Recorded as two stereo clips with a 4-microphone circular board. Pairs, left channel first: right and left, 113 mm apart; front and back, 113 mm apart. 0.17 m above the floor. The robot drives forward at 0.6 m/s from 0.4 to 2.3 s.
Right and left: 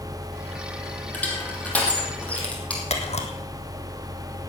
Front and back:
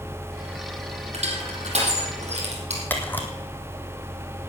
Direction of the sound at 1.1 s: 165° right.